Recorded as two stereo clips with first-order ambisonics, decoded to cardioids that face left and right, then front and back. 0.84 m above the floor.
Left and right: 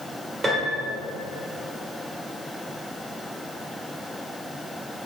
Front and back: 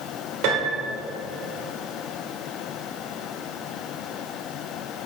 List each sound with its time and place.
0.4 s a piano: 165° right, 1.7 m